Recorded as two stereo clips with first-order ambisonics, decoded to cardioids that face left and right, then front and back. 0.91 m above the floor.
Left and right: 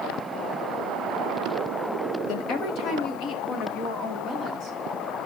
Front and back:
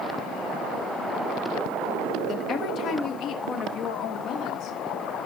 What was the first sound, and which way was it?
A woman speaking, 60° left.